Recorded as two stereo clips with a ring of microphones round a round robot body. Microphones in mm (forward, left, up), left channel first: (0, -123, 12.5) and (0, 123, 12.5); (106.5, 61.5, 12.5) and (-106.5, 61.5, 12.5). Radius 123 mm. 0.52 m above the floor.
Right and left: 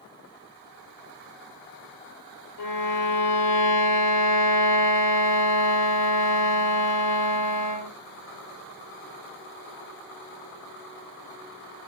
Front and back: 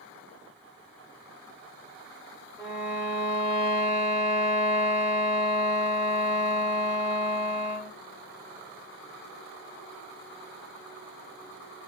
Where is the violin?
105° right, 0.6 m.